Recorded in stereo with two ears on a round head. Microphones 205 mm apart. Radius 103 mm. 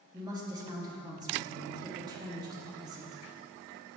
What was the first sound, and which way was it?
A woman speaking, 15° right (ahead or behind).